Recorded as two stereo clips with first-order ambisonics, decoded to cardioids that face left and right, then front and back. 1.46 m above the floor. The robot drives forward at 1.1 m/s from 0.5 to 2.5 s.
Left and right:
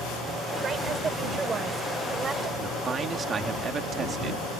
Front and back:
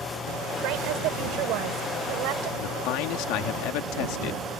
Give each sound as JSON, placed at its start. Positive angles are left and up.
{"t": 0.6, "sound": "a woman speaking", "azimuth_deg": -155}
{"t": 2.6, "sound": "a man speaking", "azimuth_deg": -25}